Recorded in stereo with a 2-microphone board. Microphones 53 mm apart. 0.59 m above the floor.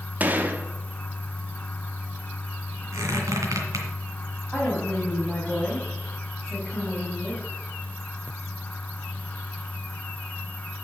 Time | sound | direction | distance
0.2 | a gunshot | 35° right (ahead or behind) | 0.9 m
2.9 | a squeak | 80° right | 2 m
4.5 | a woman speaking | 10° left (ahead or behind) | 3 m